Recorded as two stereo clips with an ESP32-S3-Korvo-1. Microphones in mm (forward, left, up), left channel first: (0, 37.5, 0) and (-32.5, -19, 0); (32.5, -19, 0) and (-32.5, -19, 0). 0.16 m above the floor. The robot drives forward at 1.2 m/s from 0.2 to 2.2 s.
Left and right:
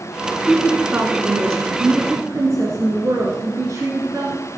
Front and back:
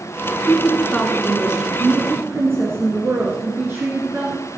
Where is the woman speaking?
50° right, 1.7 m; by 4.4 s 140° right, 1.9 m.